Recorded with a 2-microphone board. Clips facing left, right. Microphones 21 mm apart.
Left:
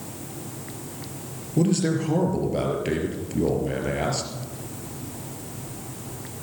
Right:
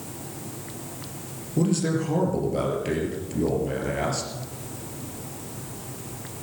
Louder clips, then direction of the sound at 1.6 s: Left 2 dB; 10° left (ahead or behind).